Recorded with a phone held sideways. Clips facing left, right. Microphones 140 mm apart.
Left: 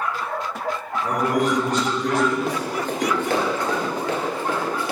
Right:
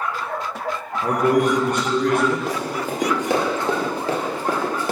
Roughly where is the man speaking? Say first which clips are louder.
Right 4 dB; right.